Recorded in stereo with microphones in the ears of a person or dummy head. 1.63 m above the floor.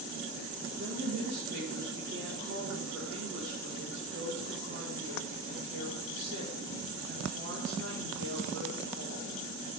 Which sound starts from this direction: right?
A woman speaking, at 0.7 s.